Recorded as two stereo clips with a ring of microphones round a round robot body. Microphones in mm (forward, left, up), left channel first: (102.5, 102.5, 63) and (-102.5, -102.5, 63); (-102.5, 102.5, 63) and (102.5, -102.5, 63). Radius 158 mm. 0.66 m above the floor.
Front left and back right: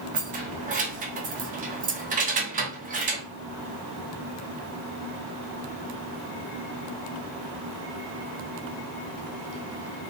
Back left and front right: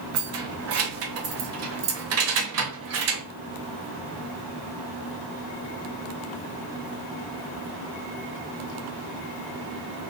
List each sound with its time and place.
0.1 s keys jangling: 75° right, 0.6 m